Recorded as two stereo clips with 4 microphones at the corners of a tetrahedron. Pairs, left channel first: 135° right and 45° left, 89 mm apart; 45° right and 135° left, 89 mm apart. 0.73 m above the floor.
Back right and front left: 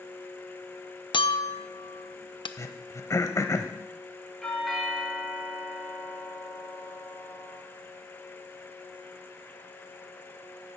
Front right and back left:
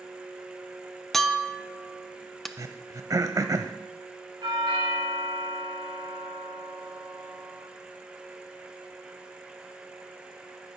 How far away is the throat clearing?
About 0.8 m.